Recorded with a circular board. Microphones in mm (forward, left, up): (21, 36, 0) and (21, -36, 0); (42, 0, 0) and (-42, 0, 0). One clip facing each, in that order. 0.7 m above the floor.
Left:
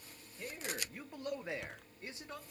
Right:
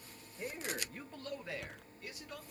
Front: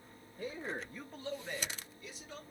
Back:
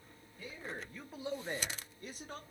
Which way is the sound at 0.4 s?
20° right.